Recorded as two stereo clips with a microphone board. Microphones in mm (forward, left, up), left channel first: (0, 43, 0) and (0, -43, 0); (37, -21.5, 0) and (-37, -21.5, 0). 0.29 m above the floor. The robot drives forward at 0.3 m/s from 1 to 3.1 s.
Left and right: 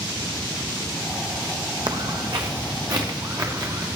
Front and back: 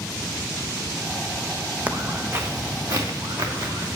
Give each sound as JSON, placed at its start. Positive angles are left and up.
{"t": 1.9, "sound": "footsteps", "azimuth_deg": -110, "distance_m": 0.9}